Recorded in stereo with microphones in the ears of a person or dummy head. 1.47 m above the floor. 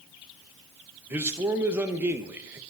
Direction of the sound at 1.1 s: 10° right (ahead or behind).